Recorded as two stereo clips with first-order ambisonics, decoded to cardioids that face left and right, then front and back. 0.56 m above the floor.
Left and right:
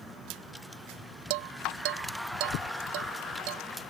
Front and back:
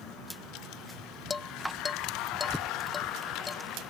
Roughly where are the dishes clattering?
Right.